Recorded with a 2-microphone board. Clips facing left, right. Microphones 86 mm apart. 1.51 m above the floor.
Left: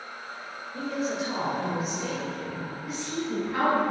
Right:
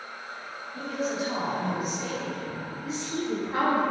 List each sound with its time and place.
0.7 s a woman speaking: centre (ahead or behind), 2.0 m
2.8 s a woman speaking: 25° right (ahead or behind), 1.7 m